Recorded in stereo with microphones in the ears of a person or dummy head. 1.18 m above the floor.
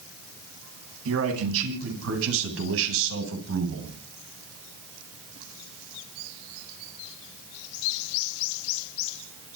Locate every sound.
1.1 s a man speaking: 85° right, 10 m; by 4.0 s 75° right (ahead or behind), 8 m